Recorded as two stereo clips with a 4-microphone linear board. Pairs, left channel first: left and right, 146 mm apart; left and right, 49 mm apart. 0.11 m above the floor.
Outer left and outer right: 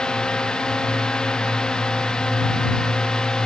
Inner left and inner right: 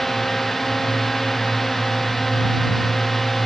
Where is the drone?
5° left (ahead or behind).